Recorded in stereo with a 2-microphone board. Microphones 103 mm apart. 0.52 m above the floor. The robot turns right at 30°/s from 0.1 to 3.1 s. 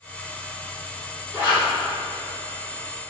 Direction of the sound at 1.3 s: 25° right (ahead or behind).